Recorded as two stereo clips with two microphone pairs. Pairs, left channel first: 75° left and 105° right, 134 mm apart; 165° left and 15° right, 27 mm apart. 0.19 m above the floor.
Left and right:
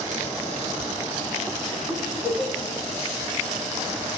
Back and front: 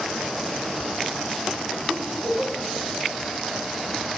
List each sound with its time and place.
1.9 s a giggle: 15° right, 6.5 m